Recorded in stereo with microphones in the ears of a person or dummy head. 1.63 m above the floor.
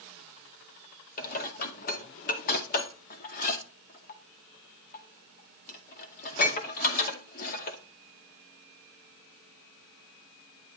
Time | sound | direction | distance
1.2 | dishes clattering | 45° left (ahead or behind) | 2 m